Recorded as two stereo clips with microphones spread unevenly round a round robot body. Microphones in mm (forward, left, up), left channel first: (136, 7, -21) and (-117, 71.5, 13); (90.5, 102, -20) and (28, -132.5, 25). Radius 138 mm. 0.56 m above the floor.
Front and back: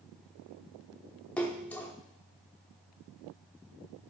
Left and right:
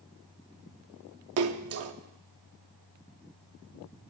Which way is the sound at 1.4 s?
90° right.